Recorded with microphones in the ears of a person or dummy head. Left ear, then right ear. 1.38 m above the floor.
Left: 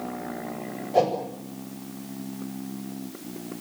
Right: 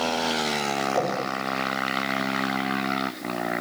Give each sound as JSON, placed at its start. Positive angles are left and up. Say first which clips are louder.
{"t": 0.9, "sound": "a whoosh", "louder": "left 8 dB", "side_deg": 75, "distance_m": 7.5}